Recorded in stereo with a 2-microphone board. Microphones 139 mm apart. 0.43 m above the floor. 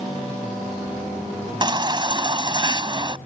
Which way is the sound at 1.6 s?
35° right (ahead or behind).